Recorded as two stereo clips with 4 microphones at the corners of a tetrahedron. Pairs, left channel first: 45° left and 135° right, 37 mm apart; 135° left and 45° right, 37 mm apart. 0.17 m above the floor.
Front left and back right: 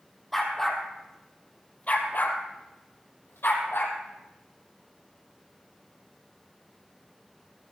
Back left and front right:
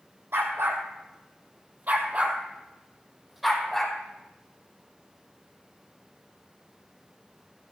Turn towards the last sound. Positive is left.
turn(degrees=50)